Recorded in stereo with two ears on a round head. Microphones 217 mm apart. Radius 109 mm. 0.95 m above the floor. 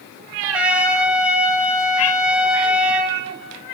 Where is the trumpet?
5° right (ahead or behind), 0.7 m.